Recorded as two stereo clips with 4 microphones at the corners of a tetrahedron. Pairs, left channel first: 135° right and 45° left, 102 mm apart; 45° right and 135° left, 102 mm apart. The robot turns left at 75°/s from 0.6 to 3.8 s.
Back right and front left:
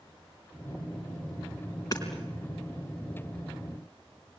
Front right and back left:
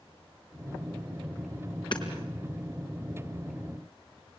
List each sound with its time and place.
1.9 s hammering: 80° right, 4 m; by 2.0 s 95° right, 4 m